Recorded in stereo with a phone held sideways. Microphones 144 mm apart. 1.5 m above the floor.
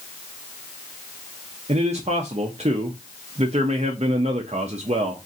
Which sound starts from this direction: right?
A man speaking, at 1.7 s.